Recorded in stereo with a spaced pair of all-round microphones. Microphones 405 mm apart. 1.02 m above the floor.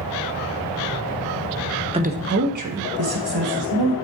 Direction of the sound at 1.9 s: 15° right (ahead or behind).